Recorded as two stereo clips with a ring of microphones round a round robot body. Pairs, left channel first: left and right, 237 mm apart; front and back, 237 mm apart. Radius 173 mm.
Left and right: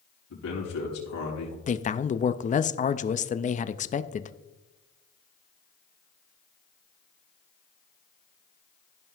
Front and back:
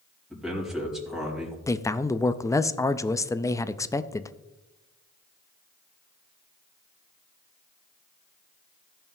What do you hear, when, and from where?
0.3 s a man speaking: 90° left, 4 m
1.7 s a man speaking: 70° left, 0.5 m